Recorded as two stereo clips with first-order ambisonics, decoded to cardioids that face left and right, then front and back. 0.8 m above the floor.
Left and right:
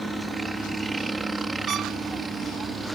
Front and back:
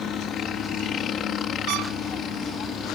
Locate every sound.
0.0 s a helicopter: 15° right; by 3.0 s 25° right
1.7 s a trumpet: 150° right